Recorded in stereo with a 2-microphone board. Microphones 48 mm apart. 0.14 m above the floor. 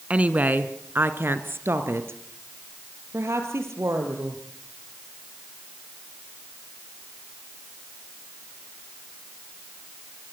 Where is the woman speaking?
25° right (ahead or behind), 1.3 m; by 4.4 s 65° right (ahead or behind), 3.5 m.